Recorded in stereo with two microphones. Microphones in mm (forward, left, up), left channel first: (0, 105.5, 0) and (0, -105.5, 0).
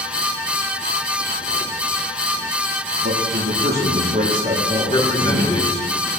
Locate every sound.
3.0 s a man speaking: 60° right (ahead or behind), 5 m; by 5.6 s 20° right (ahead or behind), 6 m
4.9 s a man speaking: 25° left (ahead or behind), 5.5 m